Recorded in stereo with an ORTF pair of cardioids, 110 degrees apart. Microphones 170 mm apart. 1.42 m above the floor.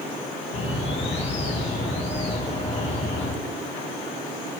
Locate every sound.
0.5 s a bird: 40° left, 1.6 m